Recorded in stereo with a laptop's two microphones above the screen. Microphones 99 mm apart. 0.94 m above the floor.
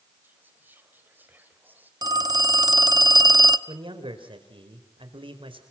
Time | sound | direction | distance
0.2 | whispering | 20° right (ahead or behind) | 4 m
2.0 | a phone ringing | 45° right (ahead or behind) | 0.8 m
3.7 | a man speaking | 70° right (ahead or behind) | 4 m